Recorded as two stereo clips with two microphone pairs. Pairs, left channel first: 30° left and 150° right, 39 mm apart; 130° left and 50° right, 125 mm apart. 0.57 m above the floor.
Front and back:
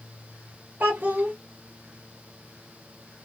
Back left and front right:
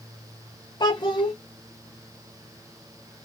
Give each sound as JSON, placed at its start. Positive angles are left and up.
{"t": 0.8, "sound": "a child speaking", "azimuth_deg": 175, "distance_m": 0.5}